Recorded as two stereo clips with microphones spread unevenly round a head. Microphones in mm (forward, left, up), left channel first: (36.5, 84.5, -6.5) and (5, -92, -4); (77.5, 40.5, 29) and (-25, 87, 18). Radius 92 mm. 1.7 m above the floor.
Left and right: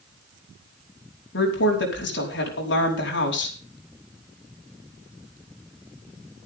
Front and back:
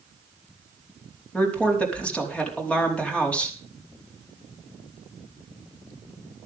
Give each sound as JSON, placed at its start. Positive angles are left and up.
{"t": 1.3, "sound": "a woman speaking", "azimuth_deg": 55, "distance_m": 5.0}